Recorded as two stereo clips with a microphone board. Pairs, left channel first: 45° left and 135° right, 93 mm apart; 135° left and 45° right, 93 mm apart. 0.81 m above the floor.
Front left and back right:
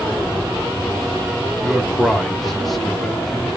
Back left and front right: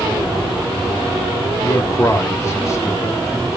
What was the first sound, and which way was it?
A man speaking, 135° left.